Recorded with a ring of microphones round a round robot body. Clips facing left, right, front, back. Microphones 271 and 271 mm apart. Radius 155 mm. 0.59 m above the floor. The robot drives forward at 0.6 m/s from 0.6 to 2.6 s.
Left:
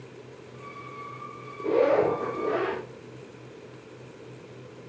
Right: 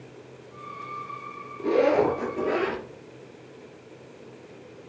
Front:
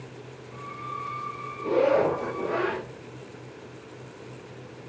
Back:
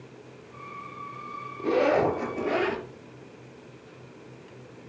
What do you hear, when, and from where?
1.6 s a zipper: 140° right, 3.5 m; by 2.9 s 150° right, 4 m